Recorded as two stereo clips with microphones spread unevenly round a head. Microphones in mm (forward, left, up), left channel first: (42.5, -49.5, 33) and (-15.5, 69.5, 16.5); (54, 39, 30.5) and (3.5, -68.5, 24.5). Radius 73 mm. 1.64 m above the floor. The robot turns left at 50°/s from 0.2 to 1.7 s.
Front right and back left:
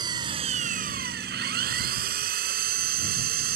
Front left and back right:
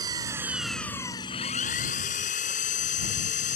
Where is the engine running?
Straight behind; by 3.6 s 105° left.